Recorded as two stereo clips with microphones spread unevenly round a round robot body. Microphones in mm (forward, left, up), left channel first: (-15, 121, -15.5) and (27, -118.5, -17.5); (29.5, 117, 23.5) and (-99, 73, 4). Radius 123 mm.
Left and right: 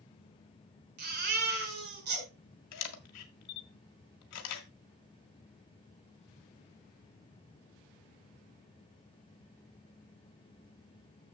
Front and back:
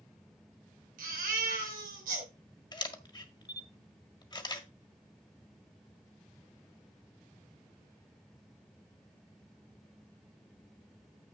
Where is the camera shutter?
80° left, 1.6 m.